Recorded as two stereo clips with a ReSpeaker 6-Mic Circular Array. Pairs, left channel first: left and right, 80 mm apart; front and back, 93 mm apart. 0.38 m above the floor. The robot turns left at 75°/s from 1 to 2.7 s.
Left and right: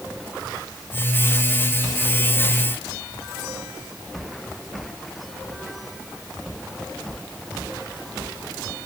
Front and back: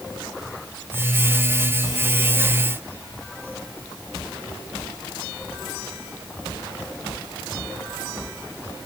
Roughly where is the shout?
No shout in this recording.